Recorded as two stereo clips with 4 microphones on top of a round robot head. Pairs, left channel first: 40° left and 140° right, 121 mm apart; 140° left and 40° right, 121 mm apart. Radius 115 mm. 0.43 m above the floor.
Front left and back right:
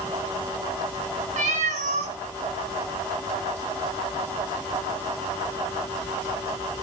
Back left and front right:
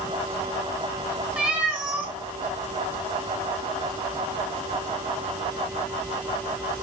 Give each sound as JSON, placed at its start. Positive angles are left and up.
{"t": 1.4, "sound": "a cat meowing", "azimuth_deg": -125, "distance_m": 1.5}